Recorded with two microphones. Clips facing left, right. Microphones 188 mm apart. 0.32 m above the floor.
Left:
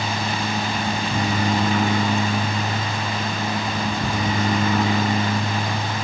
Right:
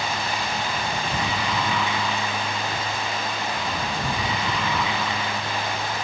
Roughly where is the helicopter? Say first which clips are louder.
Left 3 dB; left.